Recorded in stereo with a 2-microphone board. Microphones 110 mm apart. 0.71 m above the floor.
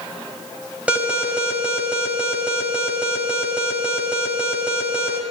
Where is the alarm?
10° right (ahead or behind), 4.5 m.